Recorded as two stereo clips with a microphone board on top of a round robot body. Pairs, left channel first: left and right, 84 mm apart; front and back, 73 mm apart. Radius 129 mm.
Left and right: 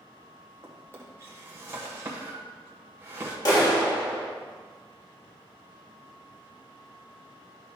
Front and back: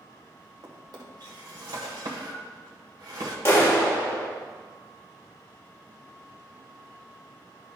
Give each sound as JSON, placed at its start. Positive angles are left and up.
{"t": 0.6, "sound": "a drawer", "azimuth_deg": -150, "distance_m": 1.3}
{"t": 3.5, "sound": "a clap", "azimuth_deg": 55, "distance_m": 2.0}